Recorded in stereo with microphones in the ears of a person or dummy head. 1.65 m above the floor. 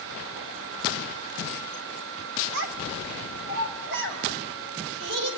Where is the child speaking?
65° right (ahead or behind), 2.5 m.